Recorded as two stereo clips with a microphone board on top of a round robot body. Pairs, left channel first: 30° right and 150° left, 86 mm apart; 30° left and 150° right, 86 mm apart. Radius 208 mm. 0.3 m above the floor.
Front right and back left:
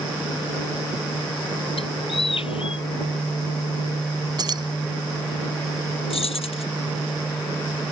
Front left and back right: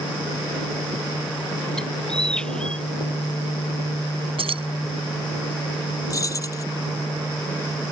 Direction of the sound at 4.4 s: 165° right.